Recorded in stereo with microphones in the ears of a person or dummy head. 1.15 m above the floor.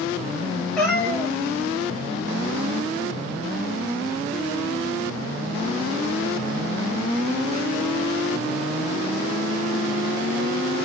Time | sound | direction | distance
0.8 | a cat meowing | 10° left (ahead or behind) | 4 m